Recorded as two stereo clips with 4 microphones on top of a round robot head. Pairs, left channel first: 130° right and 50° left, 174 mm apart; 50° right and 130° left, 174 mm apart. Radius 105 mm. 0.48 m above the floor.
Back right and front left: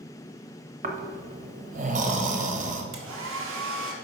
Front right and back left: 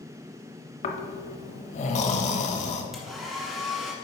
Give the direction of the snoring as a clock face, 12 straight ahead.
12 o'clock.